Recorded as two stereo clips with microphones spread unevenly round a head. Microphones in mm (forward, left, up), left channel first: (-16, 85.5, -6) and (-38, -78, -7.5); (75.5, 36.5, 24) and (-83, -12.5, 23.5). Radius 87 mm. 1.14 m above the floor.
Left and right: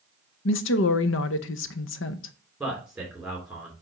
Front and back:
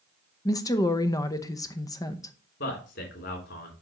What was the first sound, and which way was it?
A woman speaking, 90° left.